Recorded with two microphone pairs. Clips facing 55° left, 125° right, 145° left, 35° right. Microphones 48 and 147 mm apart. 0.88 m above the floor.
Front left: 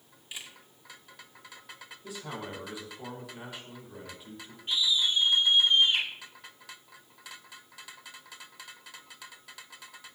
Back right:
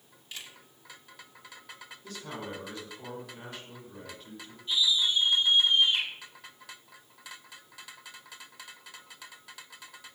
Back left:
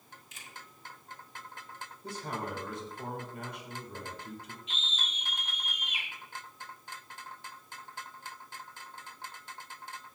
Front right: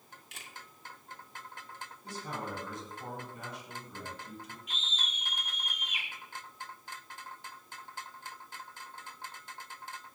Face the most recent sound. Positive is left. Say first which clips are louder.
# back right 1 dB, back left 2 dB
turn(degrees=85)